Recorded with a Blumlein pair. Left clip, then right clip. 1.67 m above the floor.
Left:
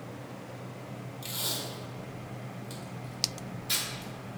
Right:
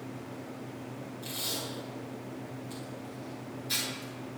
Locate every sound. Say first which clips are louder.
1.2 s tape being pulled: left 1 dB; 65° left, 3 m